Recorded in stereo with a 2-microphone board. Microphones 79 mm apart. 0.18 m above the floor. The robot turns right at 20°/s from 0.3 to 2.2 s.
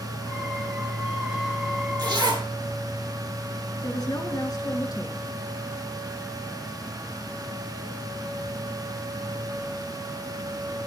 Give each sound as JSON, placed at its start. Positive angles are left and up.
{"t": 2.0, "sound": "a zipper", "side_deg": -60, "distance_m": 4.0}
{"t": 3.8, "sound": "a woman speaking", "side_deg": 55, "distance_m": 2.5}